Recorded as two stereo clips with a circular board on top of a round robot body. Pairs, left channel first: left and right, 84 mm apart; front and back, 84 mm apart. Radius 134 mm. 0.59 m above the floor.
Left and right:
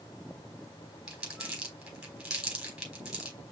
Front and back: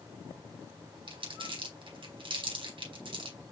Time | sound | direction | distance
1.1 | crumpling | 170° right | 4 m